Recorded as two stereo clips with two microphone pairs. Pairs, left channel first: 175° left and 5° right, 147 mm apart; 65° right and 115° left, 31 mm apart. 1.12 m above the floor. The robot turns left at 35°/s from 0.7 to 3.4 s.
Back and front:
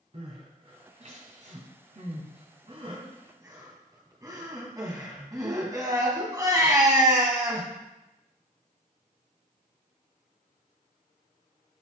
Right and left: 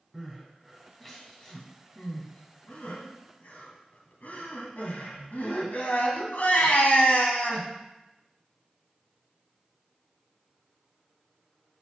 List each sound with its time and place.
0.1 s crying: 30° left, 1.7 m; by 7.7 s 65° right, 1.7 m